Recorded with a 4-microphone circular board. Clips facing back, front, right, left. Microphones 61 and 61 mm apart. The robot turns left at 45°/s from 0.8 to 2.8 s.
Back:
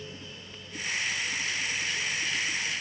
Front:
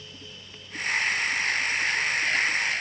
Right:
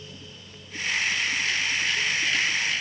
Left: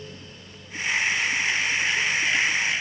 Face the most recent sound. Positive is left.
No sound to turn to.